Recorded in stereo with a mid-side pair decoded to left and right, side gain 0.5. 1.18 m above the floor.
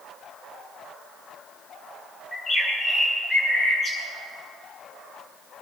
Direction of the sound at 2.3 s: 30° left.